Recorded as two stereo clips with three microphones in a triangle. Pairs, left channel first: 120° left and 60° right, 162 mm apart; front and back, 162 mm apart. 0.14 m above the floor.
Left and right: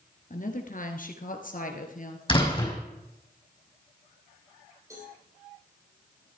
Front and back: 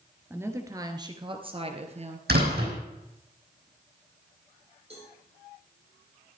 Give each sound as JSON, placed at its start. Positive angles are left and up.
{"t": 0.3, "sound": "a woman speaking", "azimuth_deg": 105, "distance_m": 2.0}
{"t": 2.3, "sound": "a door slam", "azimuth_deg": 180, "distance_m": 4.0}
{"t": 4.9, "sound": "a cowbell", "azimuth_deg": -130, "distance_m": 7.0}